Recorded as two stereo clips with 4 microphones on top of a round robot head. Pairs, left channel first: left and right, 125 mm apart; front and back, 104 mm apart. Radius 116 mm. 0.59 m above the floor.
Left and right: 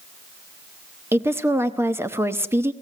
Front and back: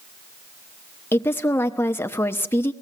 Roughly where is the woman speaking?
Ahead right.